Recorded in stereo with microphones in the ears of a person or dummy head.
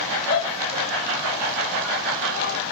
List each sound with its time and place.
0.3 s a shout: 45° left (ahead or behind), 6 m; by 2.6 s 50° left (ahead or behind), 4.5 m